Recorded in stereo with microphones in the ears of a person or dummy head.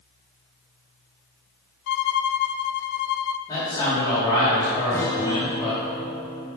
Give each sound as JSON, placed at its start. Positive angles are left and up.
{"t": 1.9, "sound": "a violin", "side_deg": 60, "distance_m": 0.6}
{"t": 3.5, "sound": "a man speaking", "side_deg": 25, "distance_m": 3.5}
{"t": 4.9, "sound": "a guitar", "side_deg": 15, "distance_m": 0.8}